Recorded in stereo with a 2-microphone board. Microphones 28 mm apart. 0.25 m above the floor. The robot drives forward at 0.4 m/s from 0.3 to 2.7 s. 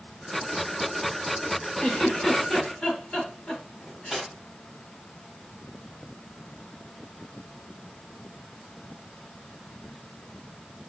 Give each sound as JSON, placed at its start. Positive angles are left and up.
{"t": 1.8, "sound": "a giggle", "side_deg": 25, "distance_m": 1.1}
{"t": 3.8, "sound": "cutlery clinking", "side_deg": -5, "distance_m": 1.0}